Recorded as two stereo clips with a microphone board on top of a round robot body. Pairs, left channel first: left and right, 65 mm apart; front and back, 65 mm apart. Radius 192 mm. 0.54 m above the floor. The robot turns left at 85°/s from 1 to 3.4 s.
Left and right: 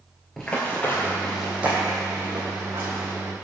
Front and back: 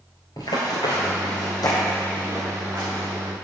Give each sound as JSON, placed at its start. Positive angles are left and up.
{"t": 0.4, "sound": "running footsteps", "azimuth_deg": 0, "distance_m": 0.5}